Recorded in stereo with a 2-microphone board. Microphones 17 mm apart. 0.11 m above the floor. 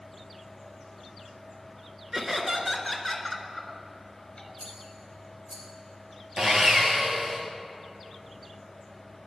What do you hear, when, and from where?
2.1 s laughter: 25° right (ahead or behind), 1.2 m; by 4.5 s 35° left (ahead or behind), 1.4 m
4.6 s a rattle: 30° right (ahead or behind), 2.5 m
6.4 s sawing: 45° right (ahead or behind), 2.5 m